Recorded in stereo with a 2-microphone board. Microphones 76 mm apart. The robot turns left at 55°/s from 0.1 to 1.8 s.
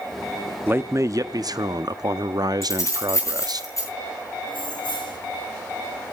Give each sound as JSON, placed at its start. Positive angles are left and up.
{"t": 0.7, "sound": "a man speaking", "azimuth_deg": -35, "distance_m": 0.8}
{"t": 2.6, "sound": "keys jangling", "side_deg": 40, "distance_m": 7.5}
{"t": 4.5, "sound": "keys jangling", "side_deg": 85, "distance_m": 2.5}